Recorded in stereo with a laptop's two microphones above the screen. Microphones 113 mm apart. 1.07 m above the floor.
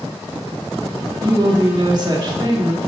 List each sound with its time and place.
1.2 s a woman speaking: 40° right (ahead or behind), 1.8 m